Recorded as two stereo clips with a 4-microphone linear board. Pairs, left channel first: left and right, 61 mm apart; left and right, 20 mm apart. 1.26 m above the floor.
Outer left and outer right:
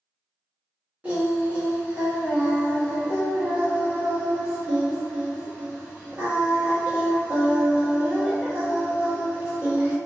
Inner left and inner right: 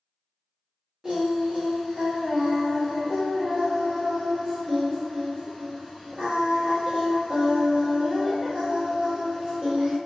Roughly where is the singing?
Right.